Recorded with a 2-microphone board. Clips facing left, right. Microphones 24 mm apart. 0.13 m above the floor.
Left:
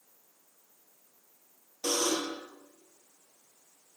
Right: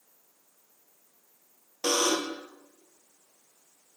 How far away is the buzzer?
About 1.1 m.